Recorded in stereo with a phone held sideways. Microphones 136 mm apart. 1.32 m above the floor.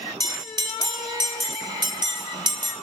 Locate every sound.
0.2 s a bell: 30° right (ahead or behind), 0.9 m